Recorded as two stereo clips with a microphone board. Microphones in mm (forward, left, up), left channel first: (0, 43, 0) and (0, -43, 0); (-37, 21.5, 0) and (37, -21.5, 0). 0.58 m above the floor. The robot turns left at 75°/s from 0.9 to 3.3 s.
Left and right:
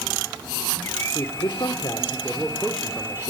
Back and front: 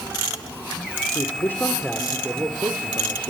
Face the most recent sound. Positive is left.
turn(degrees=-40)